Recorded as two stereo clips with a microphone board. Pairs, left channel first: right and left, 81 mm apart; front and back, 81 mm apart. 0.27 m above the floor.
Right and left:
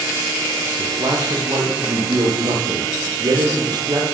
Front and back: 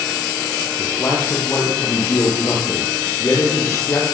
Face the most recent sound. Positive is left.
turn(degrees=55)